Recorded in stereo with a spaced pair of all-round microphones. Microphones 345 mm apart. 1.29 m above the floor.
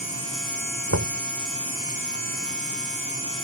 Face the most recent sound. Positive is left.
turn(degrees=-50)  # may be behind; listen again after turning